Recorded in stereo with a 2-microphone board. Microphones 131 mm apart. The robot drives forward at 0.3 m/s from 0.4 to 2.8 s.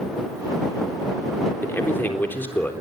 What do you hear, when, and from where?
1.6 s a man speaking: 15° left (ahead or behind), 3.5 m